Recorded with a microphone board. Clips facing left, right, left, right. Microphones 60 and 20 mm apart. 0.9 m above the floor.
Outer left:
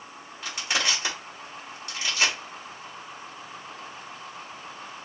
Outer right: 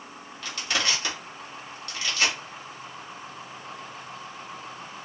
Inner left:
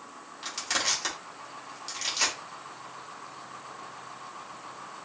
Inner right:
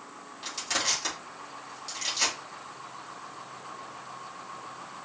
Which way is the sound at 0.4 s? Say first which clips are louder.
Outer left 1 dB, even; 20° left (ahead or behind).